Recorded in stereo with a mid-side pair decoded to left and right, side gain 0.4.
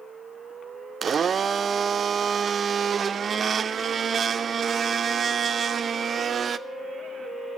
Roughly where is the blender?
Ahead right.